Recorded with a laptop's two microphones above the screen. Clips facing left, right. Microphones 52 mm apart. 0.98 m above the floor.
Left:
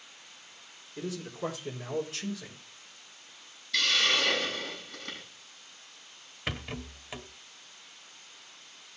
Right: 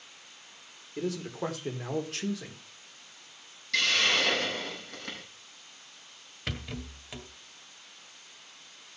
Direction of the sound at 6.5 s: 15° left (ahead or behind).